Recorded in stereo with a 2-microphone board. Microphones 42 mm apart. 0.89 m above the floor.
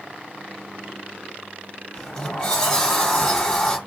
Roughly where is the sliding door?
Centre.